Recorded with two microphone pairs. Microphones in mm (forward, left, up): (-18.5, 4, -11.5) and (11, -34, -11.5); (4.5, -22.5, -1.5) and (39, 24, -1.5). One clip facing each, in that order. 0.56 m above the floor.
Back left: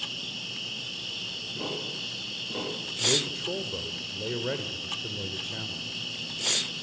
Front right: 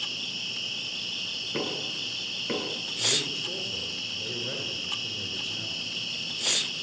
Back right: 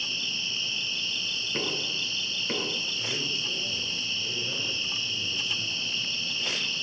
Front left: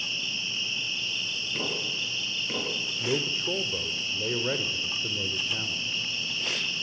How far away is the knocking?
About 9 m.